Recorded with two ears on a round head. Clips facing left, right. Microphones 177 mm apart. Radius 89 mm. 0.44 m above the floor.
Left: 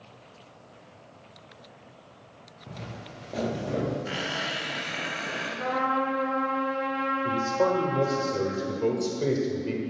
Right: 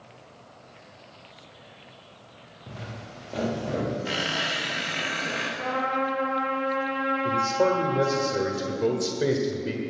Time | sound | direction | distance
2.7 | footsteps | 10° right (ahead or behind) | 3 m
4.0 | a squeak | 55° right (ahead or behind) | 5 m
5.6 | a trumpet | 20° left (ahead or behind) | 6.5 m
7.2 | a man speaking | 15° right (ahead or behind) | 1.5 m